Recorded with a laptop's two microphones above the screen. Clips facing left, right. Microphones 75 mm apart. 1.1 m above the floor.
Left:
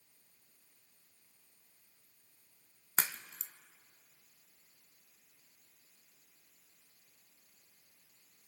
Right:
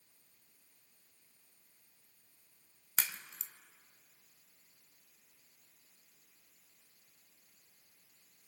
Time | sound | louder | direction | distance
3.0 | a crack | left 3 dB | 35° left (ahead or behind) | 0.8 m